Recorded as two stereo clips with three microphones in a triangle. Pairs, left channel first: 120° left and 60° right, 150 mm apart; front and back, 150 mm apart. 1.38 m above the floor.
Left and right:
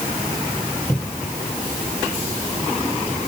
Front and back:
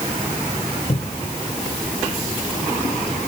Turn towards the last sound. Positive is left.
turn(degrees=45)